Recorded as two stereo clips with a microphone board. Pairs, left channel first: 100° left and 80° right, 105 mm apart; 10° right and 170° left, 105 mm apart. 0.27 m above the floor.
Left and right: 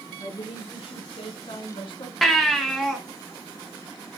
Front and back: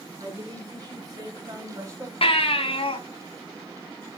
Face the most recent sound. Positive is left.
turn(degrees=10)